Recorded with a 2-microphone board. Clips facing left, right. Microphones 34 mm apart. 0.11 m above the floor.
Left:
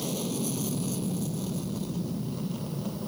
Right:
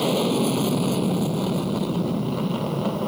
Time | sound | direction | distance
0.0 | an aircraft | 50° right (ahead or behind) | ?